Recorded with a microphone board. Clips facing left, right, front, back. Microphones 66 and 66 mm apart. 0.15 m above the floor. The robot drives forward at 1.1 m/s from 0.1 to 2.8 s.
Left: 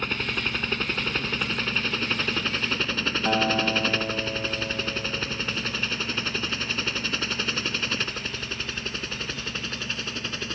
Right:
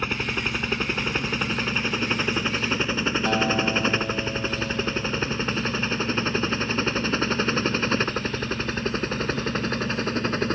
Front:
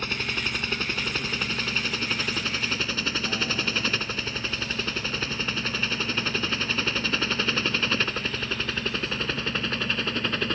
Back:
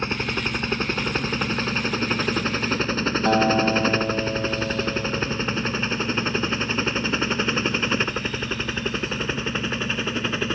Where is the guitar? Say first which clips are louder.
Left 1 dB, back 11 dB; 170° left.